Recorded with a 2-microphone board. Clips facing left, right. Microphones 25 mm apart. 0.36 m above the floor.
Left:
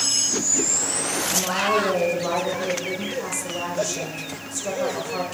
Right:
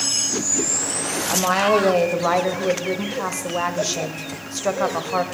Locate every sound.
1.3 s a woman speaking: 40° right (ahead or behind), 1.4 m